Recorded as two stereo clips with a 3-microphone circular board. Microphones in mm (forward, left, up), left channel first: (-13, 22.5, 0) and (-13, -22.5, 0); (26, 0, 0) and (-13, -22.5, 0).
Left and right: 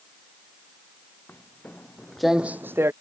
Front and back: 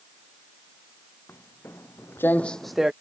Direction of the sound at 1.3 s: 50° left.